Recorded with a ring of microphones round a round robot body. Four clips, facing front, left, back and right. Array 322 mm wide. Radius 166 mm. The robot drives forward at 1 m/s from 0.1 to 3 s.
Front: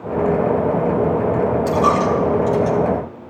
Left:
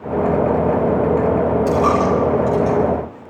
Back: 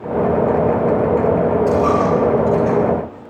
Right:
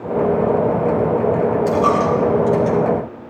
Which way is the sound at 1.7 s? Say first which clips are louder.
Even, back 1 dB; 20° right.